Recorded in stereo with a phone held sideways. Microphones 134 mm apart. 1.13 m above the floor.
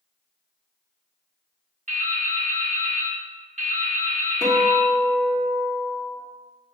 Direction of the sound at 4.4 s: 40° right (ahead or behind).